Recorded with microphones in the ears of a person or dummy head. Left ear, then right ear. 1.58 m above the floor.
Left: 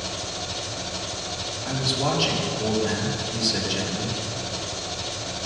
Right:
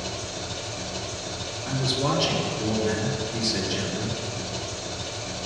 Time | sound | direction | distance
0.0 | an engine running | 55° left (ahead or behind) | 2 m
1.6 | a man speaking | 60° left (ahead or behind) | 3.5 m